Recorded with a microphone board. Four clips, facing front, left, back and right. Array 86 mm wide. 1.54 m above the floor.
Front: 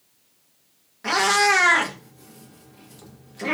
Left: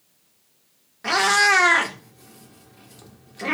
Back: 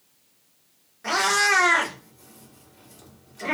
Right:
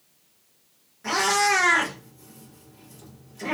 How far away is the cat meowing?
About 1.0 m.